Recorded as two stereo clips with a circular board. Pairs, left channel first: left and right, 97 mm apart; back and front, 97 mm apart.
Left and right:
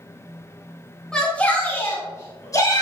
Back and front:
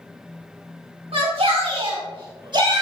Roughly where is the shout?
Ahead.